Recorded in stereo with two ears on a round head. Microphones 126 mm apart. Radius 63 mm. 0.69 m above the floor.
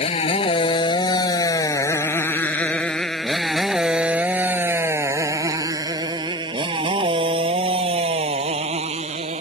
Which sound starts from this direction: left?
A motorcycle, at 0.0 s.